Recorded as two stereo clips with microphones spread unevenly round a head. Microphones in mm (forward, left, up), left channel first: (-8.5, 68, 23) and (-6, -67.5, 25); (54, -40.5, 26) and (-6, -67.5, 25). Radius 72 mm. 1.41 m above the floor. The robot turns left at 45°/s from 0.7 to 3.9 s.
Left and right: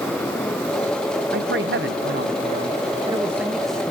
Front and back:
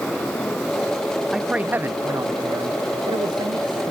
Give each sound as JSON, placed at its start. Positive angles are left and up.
{"t": 1.3, "sound": "a man speaking", "azimuth_deg": -75, "distance_m": 0.7}